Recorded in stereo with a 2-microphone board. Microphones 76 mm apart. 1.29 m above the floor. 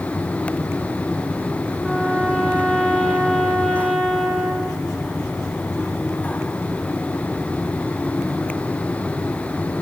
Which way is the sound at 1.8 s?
10° right (ahead or behind).